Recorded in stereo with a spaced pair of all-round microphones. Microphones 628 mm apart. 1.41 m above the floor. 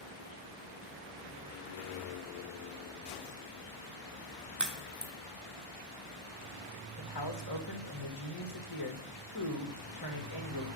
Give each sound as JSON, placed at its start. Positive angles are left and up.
{"t": 4.6, "sound": "a crack", "side_deg": -30, "distance_m": 1.2}
{"t": 7.0, "sound": "a man speaking", "side_deg": 35, "distance_m": 1.6}